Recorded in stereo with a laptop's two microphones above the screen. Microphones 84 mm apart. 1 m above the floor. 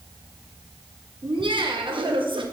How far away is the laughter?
About 1.0 m.